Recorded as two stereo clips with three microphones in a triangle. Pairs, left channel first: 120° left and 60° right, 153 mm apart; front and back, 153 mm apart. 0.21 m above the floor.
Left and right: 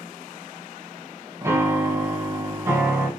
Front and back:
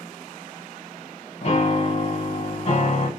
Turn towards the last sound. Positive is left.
turn(degrees=0)